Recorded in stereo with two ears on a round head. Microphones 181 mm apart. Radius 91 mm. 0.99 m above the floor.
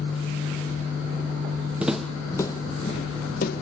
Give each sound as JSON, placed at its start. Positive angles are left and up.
{"t": 1.8, "sound": "footsteps", "side_deg": -5, "distance_m": 1.3}